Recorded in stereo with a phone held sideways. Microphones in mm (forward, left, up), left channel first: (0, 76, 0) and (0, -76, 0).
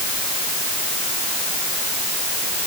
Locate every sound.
Only background noise.